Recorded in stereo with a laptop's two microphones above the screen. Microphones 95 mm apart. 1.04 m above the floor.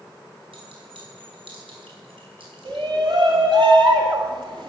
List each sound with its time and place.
0.5 s a clink: 85° right, 5 m
2.6 s a shout: 55° right (ahead or behind), 1.9 m